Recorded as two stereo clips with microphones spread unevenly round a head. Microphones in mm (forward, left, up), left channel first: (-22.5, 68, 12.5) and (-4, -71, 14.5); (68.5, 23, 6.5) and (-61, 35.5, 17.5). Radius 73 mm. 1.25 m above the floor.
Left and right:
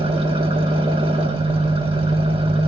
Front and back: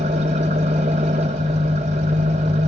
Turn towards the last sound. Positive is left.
turn(degrees=-135)